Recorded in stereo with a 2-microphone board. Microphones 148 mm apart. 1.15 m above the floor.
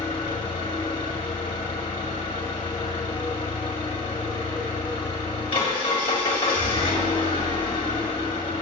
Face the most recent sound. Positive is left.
turn(degrees=35)  # may be behind; listen again after turning